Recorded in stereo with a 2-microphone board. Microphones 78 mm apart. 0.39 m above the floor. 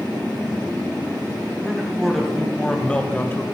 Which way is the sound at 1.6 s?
Centre (ahead or behind).